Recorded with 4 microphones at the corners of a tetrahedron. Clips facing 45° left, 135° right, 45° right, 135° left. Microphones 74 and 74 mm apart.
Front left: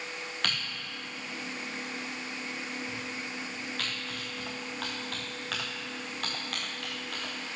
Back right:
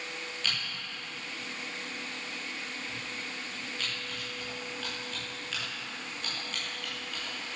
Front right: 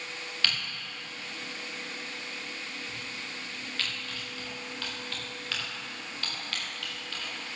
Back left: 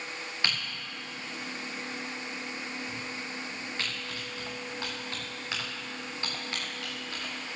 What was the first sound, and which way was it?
Typing on a keyboard, 70° left.